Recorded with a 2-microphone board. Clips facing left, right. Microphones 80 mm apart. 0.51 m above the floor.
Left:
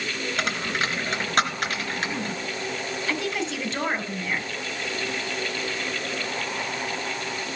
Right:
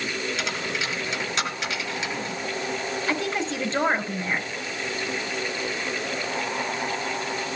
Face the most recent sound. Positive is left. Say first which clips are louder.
# right 1 dB
turn(degrees=-30)  # may be behind; listen again after turning